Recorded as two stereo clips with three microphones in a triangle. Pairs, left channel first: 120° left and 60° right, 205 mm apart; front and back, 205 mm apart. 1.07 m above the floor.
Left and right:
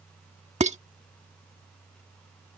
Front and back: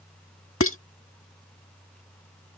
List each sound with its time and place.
0.6 s dishes clattering: straight ahead